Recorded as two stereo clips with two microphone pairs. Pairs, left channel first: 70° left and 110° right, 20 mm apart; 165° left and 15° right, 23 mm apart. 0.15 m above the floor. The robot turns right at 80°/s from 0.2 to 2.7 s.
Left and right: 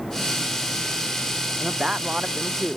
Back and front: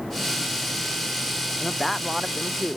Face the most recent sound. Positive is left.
turn(degrees=-45)